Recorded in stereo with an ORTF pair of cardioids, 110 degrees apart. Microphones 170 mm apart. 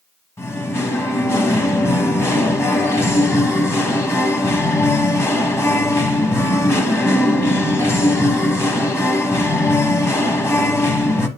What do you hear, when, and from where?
0.4 s singing: 15° left, 1.1 m